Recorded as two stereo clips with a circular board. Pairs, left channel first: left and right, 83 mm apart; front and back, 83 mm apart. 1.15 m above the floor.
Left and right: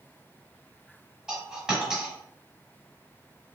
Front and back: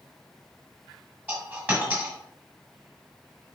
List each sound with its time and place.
1.3 s a dropped coin: 160° right, 1.0 m